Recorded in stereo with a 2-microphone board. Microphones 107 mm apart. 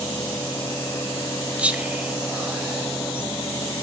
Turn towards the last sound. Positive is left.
turn(degrees=-10)  # may be behind; listen again after turning